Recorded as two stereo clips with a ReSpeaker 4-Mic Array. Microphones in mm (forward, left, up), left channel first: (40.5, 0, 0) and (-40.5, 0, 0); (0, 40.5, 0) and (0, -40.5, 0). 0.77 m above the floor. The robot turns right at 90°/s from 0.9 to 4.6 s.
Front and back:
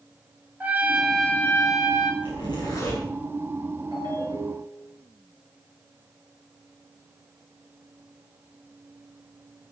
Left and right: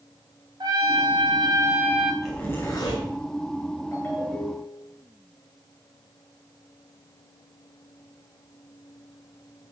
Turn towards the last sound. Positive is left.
turn(degrees=-150)